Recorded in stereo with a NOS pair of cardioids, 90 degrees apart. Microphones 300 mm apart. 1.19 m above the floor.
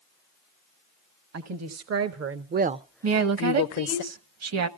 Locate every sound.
1.3 s a woman speaking: 65° right, 1.7 m; by 4.0 s 75° left, 1.1 m
3.0 s a woman speaking: 55° right, 1.3 m